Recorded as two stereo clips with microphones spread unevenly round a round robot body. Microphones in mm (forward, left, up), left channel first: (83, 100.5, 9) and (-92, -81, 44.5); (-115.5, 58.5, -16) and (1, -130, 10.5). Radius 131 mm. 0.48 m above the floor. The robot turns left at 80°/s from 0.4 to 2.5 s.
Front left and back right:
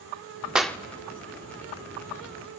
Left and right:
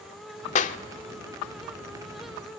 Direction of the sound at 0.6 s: 130° left.